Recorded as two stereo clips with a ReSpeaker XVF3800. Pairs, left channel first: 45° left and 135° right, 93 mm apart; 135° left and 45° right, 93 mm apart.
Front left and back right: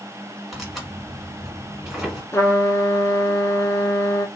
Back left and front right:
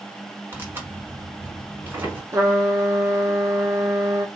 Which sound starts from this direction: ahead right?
Tearing paper, at 0.5 s.